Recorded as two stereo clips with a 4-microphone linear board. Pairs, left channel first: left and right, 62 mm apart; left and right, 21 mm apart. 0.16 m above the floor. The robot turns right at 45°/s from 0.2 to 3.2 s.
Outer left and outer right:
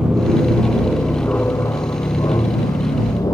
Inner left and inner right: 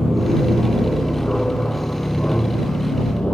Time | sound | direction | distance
0.0 | an aircraft | 15° right (ahead or behind) | ?